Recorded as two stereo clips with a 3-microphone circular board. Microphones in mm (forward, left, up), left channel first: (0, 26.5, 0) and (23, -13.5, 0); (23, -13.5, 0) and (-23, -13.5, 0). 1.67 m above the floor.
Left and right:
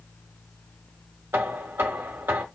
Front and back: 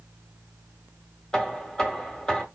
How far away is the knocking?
About 0.8 m.